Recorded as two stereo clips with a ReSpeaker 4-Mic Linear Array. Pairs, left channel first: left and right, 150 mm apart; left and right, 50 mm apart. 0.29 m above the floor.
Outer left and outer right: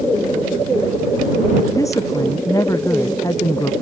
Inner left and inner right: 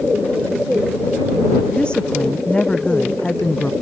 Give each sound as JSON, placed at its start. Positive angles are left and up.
{"t": 1.7, "sound": "a woman speaking", "side_deg": 20}